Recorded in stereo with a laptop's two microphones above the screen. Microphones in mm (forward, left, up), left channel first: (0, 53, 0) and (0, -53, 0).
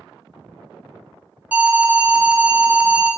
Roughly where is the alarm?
Centre.